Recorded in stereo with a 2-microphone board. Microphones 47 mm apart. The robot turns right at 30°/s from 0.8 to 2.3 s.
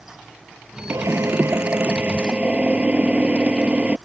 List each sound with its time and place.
0.9 s a drill: 70° right; by 4.0 s 25° right